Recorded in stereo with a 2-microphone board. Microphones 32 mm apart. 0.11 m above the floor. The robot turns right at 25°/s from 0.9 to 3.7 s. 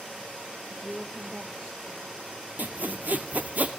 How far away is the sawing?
About 0.6 m.